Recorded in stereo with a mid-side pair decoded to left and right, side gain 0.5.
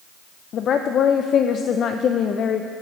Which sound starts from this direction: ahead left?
A woman speaking, at 0.5 s.